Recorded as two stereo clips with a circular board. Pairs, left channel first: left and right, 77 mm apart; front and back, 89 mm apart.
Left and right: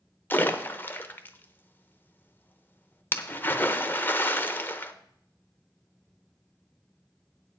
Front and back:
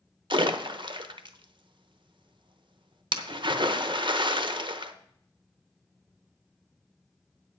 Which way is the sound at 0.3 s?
150° left.